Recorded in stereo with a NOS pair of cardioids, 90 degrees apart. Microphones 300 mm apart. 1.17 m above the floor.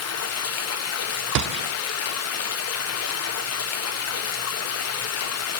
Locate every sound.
0.0 s running water: 55° left, 1.0 m
1.4 s a gunshot: 70° right, 0.5 m